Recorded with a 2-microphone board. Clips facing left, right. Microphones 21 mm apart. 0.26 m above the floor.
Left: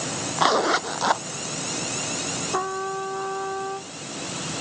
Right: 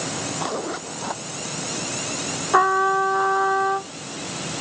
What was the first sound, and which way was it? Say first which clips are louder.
A zipper: left 7 dB; 40° left (ahead or behind).